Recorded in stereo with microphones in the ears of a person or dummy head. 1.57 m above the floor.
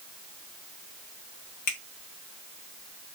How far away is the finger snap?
About 1.1 m.